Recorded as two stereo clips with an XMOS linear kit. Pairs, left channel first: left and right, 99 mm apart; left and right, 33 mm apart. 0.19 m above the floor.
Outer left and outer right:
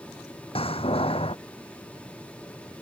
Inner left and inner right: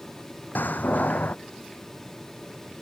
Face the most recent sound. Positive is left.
turn(degrees=70)  # may be behind; listen again after turning